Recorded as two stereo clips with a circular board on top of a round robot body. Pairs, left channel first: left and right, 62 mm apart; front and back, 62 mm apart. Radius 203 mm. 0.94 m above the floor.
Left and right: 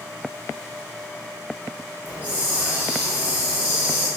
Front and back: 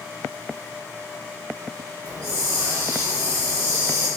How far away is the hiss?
About 5.5 m.